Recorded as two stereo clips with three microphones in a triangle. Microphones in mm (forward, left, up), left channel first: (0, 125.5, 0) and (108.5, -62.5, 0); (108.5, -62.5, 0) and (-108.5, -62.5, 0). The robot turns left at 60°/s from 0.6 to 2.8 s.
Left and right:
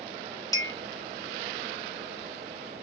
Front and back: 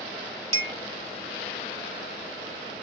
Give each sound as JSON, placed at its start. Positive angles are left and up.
{"t": 0.5, "sound": "a clink", "azimuth_deg": -170, "distance_m": 0.8}